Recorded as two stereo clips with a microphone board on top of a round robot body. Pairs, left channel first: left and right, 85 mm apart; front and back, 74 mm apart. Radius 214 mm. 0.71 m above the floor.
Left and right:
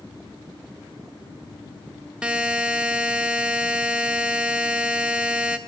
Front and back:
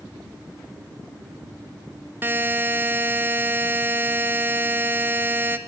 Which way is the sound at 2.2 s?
155° right.